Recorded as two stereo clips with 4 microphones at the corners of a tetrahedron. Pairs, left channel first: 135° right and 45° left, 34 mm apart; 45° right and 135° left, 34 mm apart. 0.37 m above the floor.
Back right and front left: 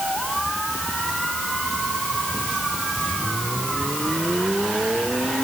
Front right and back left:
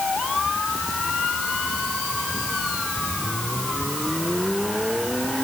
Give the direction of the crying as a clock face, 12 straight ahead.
I don't hear crying.